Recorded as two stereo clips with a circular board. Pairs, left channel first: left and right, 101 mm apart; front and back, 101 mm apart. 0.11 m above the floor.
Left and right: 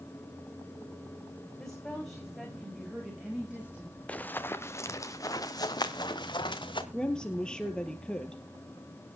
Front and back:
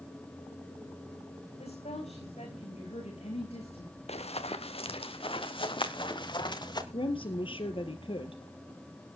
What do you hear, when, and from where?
1.6 s a woman speaking: 5° left, 7.5 m; by 4.0 s 15° right, 8.5 m
4.1 s running footsteps: 10° left, 1.4 m; by 6.8 s 45° left, 2.5 m
6.9 s a woman speaking: 10° left, 1.9 m